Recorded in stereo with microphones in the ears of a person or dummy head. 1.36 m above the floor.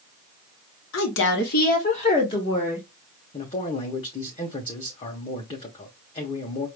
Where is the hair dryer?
No hair dryer in this recording.